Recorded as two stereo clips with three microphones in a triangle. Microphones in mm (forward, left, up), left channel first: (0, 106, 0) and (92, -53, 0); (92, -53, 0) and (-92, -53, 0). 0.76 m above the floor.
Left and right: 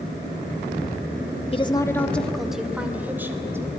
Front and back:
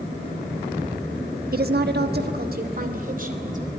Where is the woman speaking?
170° left, 1.2 m; by 3.6 s 135° right, 4 m.